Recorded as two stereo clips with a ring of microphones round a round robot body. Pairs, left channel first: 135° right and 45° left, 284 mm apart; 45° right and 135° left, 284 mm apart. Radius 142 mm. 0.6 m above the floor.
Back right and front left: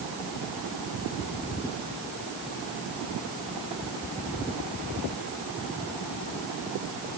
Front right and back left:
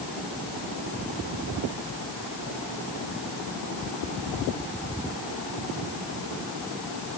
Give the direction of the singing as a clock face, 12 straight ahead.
I don't hear singing.